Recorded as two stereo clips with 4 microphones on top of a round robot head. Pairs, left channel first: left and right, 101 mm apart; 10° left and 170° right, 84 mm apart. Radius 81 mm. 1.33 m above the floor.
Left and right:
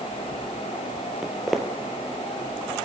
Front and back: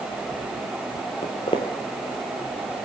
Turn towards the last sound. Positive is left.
turn(degrees=0)